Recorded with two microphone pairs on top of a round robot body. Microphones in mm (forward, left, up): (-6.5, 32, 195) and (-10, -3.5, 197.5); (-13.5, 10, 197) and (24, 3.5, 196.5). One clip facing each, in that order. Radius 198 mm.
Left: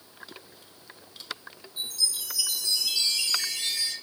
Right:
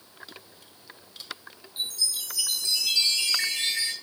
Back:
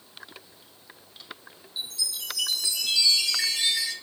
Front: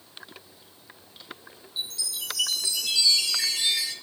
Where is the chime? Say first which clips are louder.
Even, even; 125° right, 7.5 m.